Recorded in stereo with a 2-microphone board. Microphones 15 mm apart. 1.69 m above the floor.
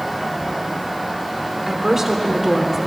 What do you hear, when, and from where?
1.7 s a woman speaking: 35° right (ahead or behind), 1.1 m